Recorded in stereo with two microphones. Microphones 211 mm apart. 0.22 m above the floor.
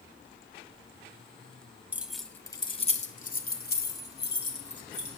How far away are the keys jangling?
About 0.9 m.